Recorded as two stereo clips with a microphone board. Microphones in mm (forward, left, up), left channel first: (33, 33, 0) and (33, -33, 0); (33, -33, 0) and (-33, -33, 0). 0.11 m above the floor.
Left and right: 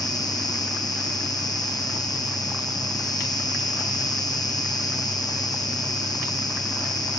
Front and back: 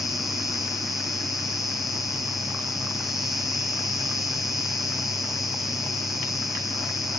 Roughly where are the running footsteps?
No running footsteps in this recording.